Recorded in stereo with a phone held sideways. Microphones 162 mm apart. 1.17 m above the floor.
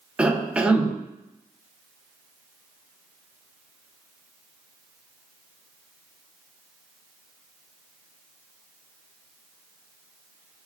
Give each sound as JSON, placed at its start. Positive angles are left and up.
{"t": 0.2, "sound": "a cough", "side_deg": -5, "distance_m": 0.5}